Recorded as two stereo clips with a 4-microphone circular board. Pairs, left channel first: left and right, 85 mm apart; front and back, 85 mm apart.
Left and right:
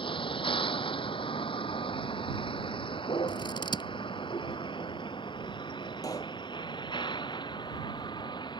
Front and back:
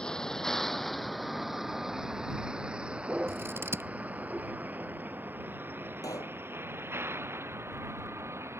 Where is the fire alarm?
I don't hear a fire alarm.